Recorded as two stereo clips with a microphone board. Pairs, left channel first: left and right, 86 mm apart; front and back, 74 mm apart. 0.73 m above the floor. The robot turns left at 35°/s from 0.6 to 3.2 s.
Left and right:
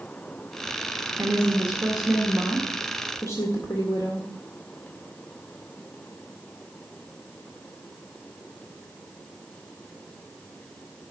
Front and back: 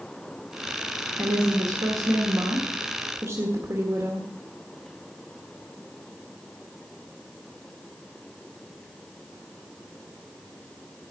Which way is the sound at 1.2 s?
150° right.